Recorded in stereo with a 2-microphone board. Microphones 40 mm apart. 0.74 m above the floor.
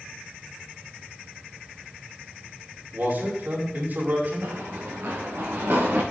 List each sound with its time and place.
2.9 s a man speaking: 60° right (ahead or behind), 5.5 m
4.4 s running footsteps: 75° right (ahead or behind), 5.5 m; by 6.0 s 70° right (ahead or behind), 4.5 m